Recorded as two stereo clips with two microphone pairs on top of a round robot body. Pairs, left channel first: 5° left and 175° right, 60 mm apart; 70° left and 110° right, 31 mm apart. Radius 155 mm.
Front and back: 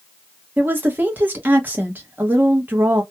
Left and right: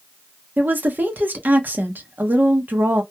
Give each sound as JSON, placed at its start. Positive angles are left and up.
{"t": 0.6, "sound": "a woman speaking", "azimuth_deg": -115, "distance_m": 1.0}